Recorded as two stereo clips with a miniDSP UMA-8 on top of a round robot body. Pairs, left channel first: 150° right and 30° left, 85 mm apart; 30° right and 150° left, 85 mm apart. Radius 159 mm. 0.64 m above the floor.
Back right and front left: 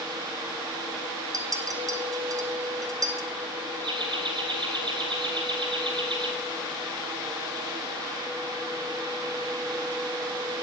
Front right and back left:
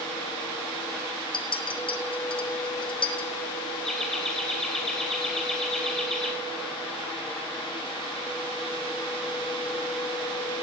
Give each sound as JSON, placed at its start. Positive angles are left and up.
{"t": 1.3, "sound": "a clink", "azimuth_deg": -15, "distance_m": 1.3}
{"t": 3.8, "sound": "laughter", "azimuth_deg": 60, "distance_m": 2.5}